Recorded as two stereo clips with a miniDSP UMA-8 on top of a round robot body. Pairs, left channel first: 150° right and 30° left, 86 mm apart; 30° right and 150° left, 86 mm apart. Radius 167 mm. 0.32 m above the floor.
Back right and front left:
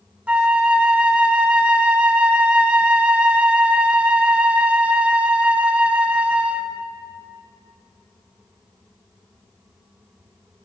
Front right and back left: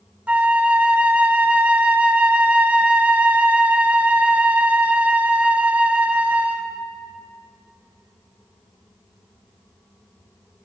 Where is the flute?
95° left, 0.9 m.